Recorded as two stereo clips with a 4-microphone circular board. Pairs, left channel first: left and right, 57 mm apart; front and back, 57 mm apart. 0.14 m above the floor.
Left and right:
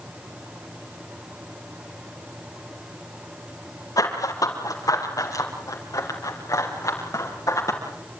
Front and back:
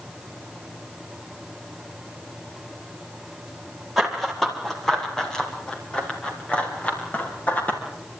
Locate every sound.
4.0 s running footsteps: 90° left, 6 m; by 7.8 s 60° left, 7.5 m